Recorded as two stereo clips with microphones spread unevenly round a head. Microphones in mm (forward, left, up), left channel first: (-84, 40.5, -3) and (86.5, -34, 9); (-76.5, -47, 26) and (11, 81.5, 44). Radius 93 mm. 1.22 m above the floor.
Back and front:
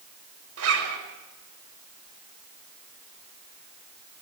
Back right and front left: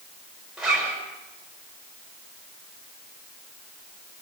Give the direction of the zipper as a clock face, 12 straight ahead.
1 o'clock.